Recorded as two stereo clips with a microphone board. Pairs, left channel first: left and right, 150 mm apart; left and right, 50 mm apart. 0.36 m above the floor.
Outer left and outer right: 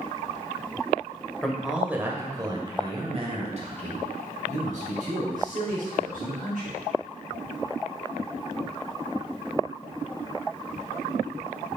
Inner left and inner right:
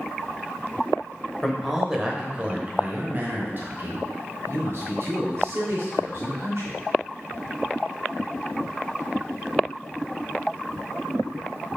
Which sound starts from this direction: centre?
A man speaking, at 1.4 s.